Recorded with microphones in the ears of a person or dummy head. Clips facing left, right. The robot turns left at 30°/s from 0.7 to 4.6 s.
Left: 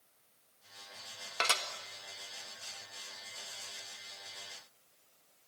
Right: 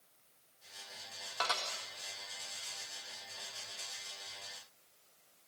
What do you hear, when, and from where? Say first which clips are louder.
1.4 s dishes clattering: left 1 dB; 35° left (ahead or behind), 1.7 m; by 1.6 s 40° left (ahead or behind), 1.7 m